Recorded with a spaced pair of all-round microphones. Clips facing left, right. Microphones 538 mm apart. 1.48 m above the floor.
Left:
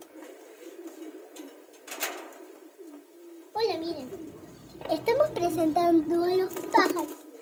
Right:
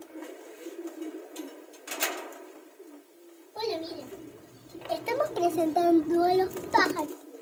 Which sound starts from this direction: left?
A child speaking, at 3.5 s.